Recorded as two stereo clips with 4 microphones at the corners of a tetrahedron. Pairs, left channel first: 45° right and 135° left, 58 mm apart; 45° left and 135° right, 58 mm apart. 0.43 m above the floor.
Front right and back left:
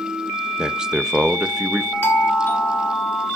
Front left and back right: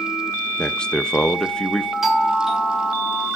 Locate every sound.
0.6 s a man speaking: 85° left, 0.7 m
2.0 s a doorbell: 60° right, 1.4 m